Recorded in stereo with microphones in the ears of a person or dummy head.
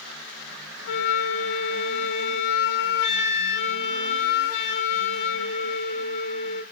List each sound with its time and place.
0.9 s a flute: 65° left (ahead or behind), 3 m